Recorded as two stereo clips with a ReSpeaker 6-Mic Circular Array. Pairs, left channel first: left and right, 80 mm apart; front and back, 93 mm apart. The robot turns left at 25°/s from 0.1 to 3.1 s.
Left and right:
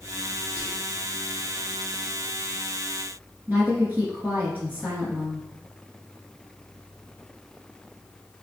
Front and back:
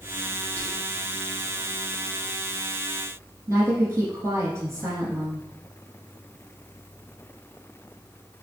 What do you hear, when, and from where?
0.6 s whispering: 35° right, 1.2 m; by 1.0 s 45° right, 1.2 m
3.5 s a woman speaking: 140° right, 1.4 m